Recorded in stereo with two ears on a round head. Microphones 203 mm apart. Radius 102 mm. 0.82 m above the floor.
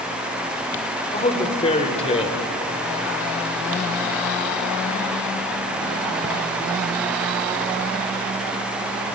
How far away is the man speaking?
About 2.5 m.